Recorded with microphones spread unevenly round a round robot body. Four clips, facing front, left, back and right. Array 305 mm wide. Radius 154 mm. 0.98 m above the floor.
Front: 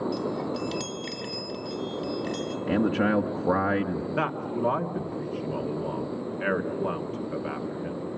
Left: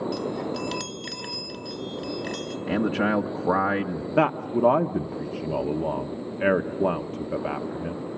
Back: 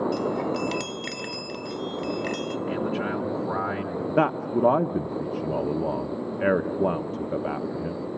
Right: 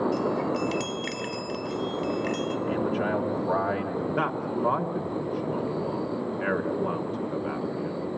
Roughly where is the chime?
Behind.